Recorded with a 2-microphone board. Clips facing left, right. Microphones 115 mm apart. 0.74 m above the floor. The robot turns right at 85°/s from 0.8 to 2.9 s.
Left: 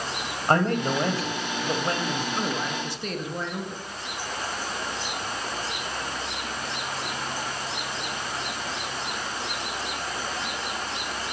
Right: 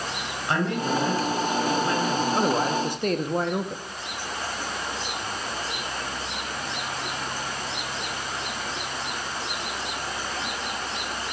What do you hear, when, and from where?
0.5 s a man speaking: 45° left, 3.5 m; by 2.2 s 170° left, 3.5 m
2.3 s a man speaking: 130° right, 1.1 m; by 3.8 s 80° right, 1.1 m